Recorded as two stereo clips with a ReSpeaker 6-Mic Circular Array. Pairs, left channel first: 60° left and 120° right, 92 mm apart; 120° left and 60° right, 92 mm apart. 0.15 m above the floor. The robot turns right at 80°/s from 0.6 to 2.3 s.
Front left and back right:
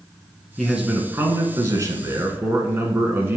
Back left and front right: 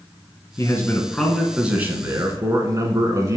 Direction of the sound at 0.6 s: 150° left.